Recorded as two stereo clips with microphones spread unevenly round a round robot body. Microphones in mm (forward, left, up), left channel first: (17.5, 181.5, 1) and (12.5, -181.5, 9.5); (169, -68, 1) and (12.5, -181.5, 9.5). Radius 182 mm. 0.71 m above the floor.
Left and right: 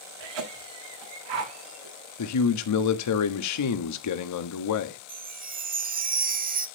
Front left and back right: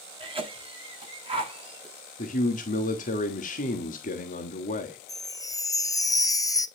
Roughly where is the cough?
Right.